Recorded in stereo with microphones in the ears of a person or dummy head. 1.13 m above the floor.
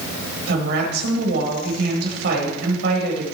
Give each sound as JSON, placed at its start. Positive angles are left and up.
{"t": 0.5, "sound": "a woman speaking", "side_deg": -70, "distance_m": 4.5}